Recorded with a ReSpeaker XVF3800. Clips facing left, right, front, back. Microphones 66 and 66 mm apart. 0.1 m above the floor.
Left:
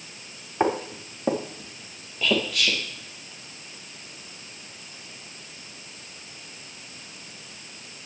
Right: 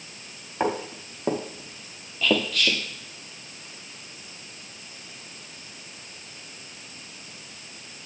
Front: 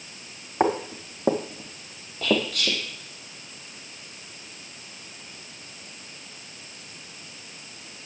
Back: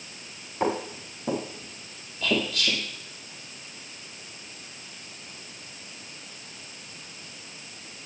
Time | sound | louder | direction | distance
0.6 | footsteps | left 2 dB, front 4 dB | 10° left | 3.5 m
2.2 | whispering | right 1 dB, front 2 dB | 10° left | 3.5 m